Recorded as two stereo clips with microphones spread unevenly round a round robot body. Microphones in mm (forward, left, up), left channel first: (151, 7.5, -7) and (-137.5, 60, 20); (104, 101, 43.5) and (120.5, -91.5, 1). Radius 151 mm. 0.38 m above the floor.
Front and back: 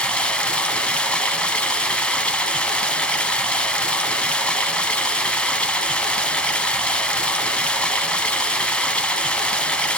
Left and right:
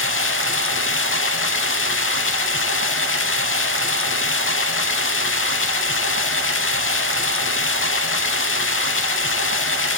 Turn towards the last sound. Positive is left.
turn(degrees=75)